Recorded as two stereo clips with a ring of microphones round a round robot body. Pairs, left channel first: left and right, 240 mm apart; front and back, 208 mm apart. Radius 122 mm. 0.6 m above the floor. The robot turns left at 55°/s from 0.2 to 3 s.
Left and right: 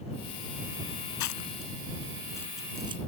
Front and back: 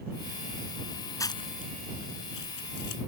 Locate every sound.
1.2 s chewing: 75° left; by 3.0 s 20° right